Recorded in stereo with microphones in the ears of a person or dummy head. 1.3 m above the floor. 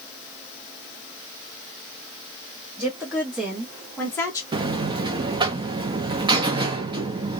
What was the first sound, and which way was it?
A woman speaking, 5° right (ahead or behind).